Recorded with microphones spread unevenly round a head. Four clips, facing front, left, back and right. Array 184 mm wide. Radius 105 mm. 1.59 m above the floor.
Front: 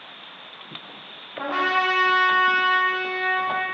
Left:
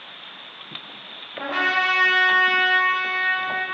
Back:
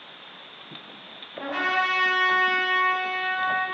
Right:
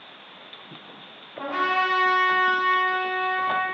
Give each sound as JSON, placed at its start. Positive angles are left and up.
{"t": 1.4, "sound": "a trumpet", "azimuth_deg": -20, "distance_m": 0.5}